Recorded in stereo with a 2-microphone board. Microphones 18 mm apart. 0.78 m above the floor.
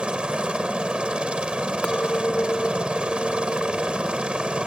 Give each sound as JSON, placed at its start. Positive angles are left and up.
{"t": 0.0, "sound": "a helicopter", "side_deg": -60}
{"t": 1.8, "sound": "a clink", "side_deg": 65}